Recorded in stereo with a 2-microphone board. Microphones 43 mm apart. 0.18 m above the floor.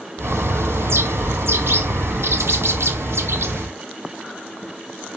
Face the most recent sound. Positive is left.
turn(degrees=-85)